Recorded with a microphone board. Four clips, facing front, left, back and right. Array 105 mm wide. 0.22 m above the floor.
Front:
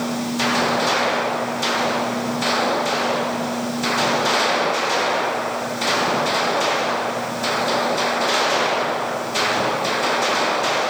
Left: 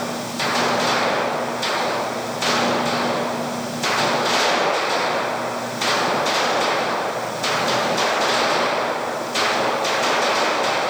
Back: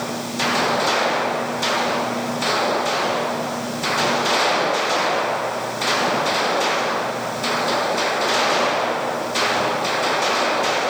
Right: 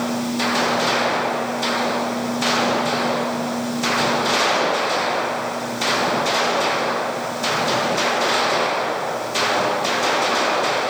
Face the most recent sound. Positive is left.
No sound to turn to.